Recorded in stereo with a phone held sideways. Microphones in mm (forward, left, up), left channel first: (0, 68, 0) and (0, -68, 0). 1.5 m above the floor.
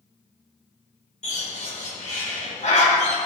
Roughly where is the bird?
Left.